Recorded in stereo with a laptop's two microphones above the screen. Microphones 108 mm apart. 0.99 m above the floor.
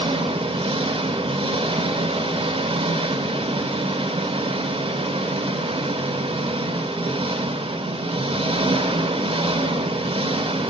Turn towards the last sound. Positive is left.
turn(degrees=-60)  # may be behind; listen again after turning